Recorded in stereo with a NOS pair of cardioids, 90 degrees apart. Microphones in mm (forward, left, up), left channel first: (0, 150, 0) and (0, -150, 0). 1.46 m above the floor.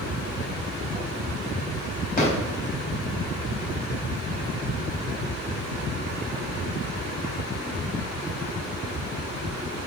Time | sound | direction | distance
2.2 | a drawer | 30° left | 3.5 m